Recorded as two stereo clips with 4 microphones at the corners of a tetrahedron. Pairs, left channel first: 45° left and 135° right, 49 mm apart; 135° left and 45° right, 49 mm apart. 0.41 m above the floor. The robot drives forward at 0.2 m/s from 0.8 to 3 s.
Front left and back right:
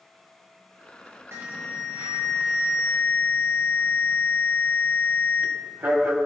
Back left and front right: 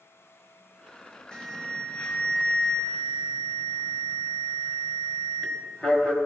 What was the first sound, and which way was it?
An alarm, 160° right.